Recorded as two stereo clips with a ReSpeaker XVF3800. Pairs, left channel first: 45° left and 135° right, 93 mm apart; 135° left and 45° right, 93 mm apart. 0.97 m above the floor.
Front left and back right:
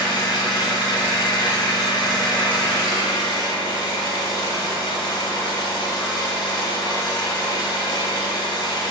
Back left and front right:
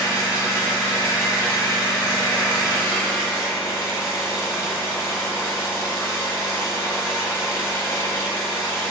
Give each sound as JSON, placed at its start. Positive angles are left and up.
{"t": 0.0, "sound": "an engine running", "azimuth_deg": 75, "distance_m": 1.2}